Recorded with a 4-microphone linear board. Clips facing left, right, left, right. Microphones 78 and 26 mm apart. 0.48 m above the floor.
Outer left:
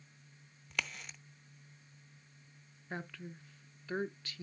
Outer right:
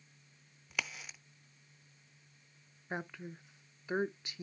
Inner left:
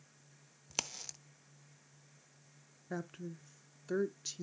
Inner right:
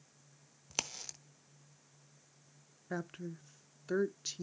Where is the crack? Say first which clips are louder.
Even, inner right 1 dB; 5° right (ahead or behind), 0.5 m.